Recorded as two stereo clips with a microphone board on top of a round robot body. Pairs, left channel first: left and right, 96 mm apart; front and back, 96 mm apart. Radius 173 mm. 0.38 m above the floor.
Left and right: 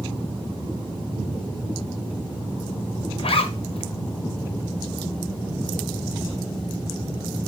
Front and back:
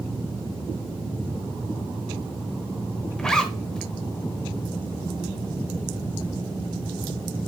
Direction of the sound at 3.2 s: 85° left.